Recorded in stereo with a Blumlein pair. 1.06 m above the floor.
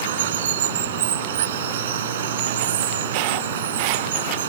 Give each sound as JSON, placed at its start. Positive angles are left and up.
{"t": 0.0, "sound": "running water", "azimuth_deg": -60}